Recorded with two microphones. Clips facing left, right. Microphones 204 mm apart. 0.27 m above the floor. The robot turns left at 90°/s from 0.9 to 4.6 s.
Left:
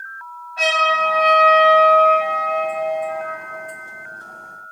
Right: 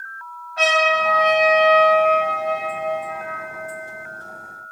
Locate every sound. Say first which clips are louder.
0.6 s a trumpet: right 2 dB; 85° right, 1.3 m; by 3.4 s 50° left, 1.3 m